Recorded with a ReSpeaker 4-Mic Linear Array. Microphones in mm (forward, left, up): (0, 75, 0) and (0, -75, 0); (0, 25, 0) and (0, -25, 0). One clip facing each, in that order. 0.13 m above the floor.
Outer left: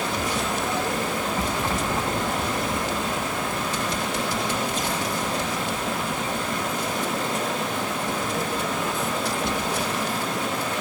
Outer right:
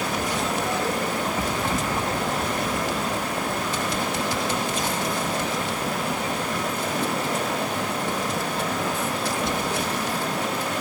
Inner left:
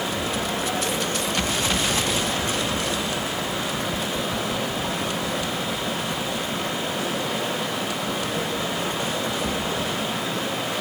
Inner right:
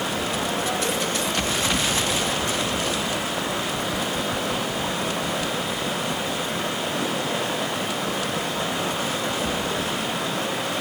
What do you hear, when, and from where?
0.0 s running water: 65° right (ahead or behind), 8 m